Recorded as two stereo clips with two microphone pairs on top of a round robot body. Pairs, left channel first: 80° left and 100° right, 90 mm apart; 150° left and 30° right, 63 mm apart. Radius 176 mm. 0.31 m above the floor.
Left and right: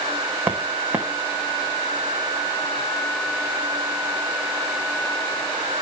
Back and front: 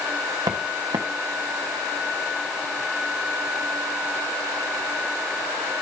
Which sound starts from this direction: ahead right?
Footsteps, at 0.5 s.